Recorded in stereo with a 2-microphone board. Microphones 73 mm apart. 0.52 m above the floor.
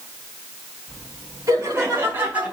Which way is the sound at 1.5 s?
40° right (ahead or behind).